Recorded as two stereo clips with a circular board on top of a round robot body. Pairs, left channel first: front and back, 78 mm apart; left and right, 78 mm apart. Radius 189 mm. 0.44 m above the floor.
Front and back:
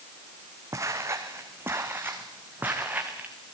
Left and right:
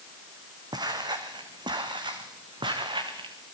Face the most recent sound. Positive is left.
turn(degrees=-110)